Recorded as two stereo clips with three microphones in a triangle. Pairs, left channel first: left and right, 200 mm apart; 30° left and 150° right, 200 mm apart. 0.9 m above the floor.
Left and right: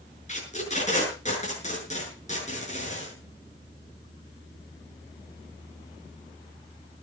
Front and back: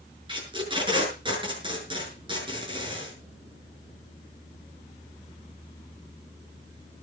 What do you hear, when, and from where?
0.3 s tape being pulled: 145° left, 7 m